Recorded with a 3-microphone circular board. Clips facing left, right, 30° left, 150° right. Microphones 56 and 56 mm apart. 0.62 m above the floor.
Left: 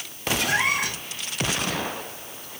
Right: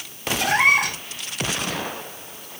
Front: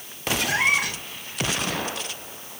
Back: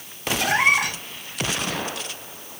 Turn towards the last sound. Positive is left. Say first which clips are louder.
# right 7 dB, back 4 dB
turn(degrees=-125)